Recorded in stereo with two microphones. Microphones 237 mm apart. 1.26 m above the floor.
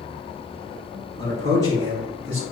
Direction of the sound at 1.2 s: 50° right (ahead or behind).